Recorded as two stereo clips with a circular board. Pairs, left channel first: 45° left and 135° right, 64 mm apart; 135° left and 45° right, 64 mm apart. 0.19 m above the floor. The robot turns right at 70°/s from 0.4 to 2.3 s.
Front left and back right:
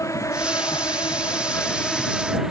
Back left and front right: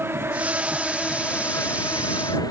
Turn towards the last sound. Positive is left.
turn(degrees=140)